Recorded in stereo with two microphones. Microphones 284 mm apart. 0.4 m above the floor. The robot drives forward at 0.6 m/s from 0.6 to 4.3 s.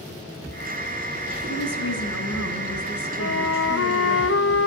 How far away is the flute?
About 1.6 m.